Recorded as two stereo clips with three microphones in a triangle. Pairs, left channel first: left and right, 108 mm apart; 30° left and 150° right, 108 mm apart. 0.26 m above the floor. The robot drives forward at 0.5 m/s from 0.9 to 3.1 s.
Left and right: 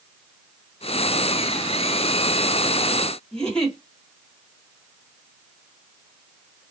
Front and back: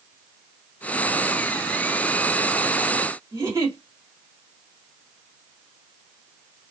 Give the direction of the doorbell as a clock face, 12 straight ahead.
I don't hear a doorbell.